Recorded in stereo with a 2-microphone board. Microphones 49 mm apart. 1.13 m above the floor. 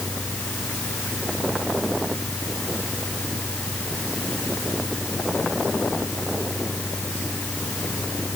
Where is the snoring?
No snoring in this recording.